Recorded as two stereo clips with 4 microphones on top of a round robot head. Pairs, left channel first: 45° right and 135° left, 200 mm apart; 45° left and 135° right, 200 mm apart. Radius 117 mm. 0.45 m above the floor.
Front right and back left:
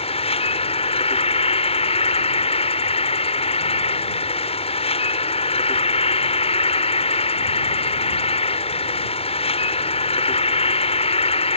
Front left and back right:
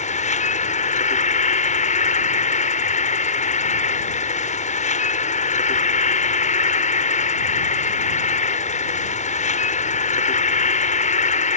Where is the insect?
5° left.